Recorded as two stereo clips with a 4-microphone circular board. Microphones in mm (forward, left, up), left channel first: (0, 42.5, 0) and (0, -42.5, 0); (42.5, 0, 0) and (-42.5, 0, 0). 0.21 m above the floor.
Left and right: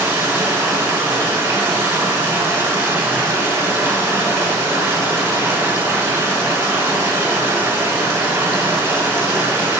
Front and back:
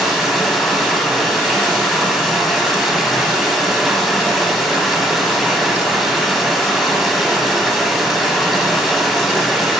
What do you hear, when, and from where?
0.0 s running water: 95° right, 0.9 m